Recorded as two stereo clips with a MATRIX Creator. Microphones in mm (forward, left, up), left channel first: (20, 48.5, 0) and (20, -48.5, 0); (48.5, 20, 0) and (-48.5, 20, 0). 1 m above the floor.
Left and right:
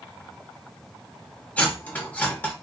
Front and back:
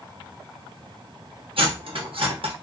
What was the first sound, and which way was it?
Cutlery clinking, 165° left.